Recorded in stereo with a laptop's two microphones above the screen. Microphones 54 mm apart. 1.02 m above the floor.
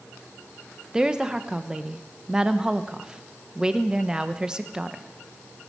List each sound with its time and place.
0.9 s a woman speaking: 15° right (ahead or behind), 0.8 m